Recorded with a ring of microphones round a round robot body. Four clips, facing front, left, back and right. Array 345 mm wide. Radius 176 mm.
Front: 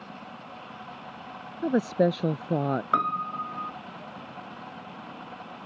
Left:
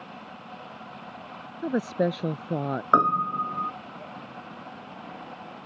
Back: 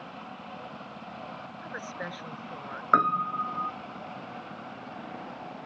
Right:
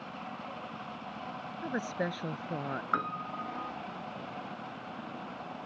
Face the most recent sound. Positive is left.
turn(degrees=100)